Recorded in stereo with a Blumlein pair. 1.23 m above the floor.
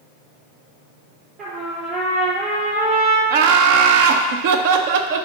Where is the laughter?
50° right, 0.6 m.